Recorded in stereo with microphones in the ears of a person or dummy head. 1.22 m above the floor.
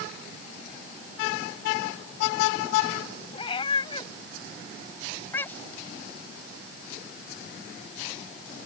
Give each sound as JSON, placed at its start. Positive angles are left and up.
{"t": 3.3, "sound": "a cat meowing", "side_deg": 30}